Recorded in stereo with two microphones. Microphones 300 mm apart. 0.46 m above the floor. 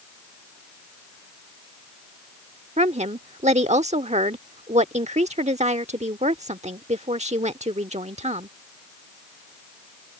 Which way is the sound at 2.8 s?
20° right (ahead or behind).